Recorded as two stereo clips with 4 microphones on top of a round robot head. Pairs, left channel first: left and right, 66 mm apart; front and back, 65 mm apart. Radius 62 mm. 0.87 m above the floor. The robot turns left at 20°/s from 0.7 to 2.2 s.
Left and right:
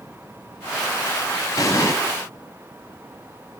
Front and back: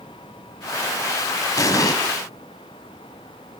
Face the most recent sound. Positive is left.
turn(degrees=20)